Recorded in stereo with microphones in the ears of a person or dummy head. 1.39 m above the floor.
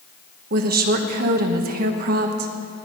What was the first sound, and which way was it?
A woman speaking, 50° right (ahead or behind).